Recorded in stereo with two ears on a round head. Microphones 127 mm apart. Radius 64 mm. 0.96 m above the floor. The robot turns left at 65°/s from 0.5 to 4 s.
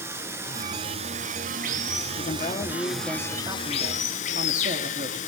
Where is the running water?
20° right, 1.6 m; by 5.3 s 110° left, 1.6 m.